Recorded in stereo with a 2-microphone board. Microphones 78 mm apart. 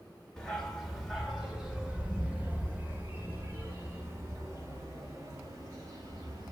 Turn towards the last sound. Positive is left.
turn(degrees=-50)  # may be behind; listen again after turning